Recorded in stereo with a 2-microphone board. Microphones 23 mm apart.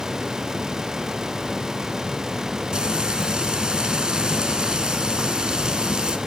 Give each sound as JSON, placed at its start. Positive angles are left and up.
{"t": 2.7, "sound": "frying", "side_deg": -40, "distance_m": 0.9}